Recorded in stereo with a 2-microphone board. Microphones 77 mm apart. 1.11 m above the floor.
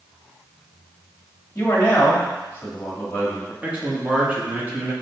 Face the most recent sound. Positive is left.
turn(degrees=-20)  # may be behind; listen again after turning